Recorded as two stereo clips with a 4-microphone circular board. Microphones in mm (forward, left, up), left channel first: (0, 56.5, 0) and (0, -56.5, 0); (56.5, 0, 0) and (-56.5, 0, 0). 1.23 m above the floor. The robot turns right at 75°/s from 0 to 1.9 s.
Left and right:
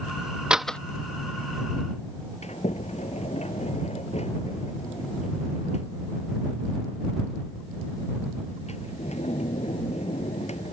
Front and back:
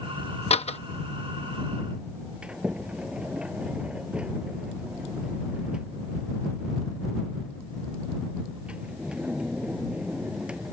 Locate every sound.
0.5 s a door slam: 10° right; by 0.8 s 10° left
2.4 s a sliding door: 100° left